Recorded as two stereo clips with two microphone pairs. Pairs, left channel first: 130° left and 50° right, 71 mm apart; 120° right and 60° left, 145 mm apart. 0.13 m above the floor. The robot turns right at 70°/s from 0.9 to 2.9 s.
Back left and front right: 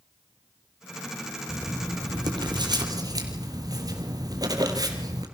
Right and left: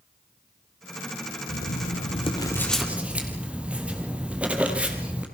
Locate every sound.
1.5 s writing: 120° right, 4 m; by 5.2 s 25° right, 4 m